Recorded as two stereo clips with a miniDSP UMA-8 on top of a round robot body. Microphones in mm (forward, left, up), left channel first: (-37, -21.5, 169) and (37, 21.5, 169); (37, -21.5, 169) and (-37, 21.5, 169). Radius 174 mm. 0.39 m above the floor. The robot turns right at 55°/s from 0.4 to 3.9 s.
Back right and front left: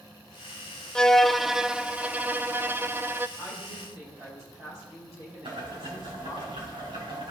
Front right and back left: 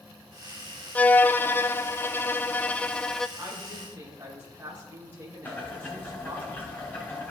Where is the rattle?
No rattle in this recording.